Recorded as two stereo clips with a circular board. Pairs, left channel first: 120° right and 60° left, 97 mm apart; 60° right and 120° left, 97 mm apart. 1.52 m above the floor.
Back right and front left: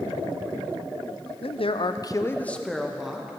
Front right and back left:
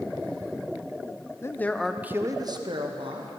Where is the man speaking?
120° right, 0.7 m; by 3.4 s 140° left, 1.3 m.